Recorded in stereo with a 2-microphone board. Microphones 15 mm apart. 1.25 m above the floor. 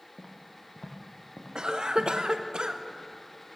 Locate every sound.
0.2 s footsteps: 30° left (ahead or behind), 2 m; by 2.1 s 55° left (ahead or behind), 2.5 m
1.6 s a cough: 70° right (ahead or behind), 0.9 m